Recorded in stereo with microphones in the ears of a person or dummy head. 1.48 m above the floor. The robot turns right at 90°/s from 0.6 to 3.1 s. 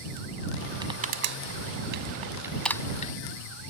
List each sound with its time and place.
0.8 s crushing: 25° right (ahead or behind); by 3.1 s 50° left (ahead or behind)